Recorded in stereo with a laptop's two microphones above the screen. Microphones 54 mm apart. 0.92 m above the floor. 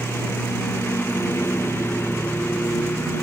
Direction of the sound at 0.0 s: 50° left (ahead or behind).